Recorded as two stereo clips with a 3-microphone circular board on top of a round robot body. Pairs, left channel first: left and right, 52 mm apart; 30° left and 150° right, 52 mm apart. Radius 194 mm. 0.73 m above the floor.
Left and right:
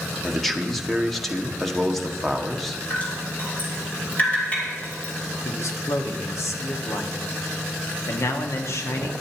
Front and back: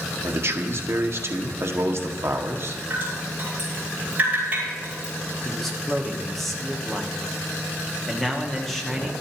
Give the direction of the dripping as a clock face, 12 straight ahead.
7 o'clock.